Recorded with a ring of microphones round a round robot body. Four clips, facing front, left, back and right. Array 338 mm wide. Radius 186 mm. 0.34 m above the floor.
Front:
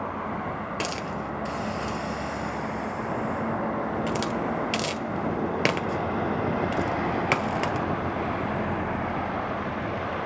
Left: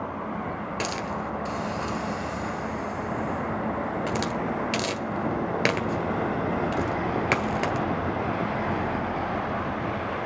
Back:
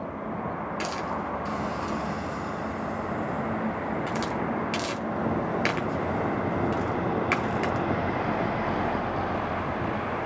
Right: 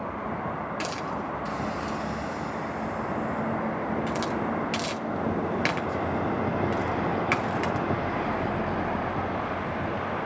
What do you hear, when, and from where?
0.8 s a hiss: 40° left, 1.6 m